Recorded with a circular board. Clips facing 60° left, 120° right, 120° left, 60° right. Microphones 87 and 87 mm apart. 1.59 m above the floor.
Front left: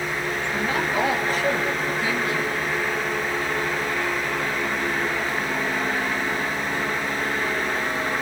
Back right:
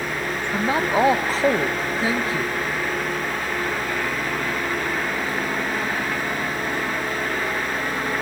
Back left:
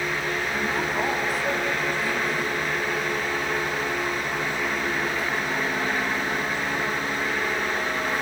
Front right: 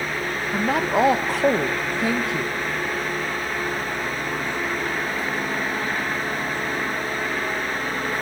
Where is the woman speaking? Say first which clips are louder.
Back right 5 dB, front right 9 dB; 65° right, 1.3 m.